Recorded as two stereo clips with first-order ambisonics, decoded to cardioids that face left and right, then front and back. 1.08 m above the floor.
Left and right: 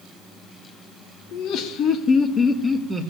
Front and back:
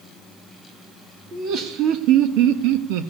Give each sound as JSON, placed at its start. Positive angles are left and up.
{"t": 1.3, "sound": "laughter", "azimuth_deg": 125, "distance_m": 1.6}